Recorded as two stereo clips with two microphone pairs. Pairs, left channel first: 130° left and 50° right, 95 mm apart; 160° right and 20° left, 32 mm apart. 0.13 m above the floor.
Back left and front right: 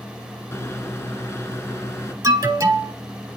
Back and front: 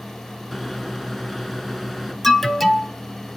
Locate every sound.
0.5 s a microwave: 110° left, 1.0 m
2.2 s an alarm: 85° right, 1.6 m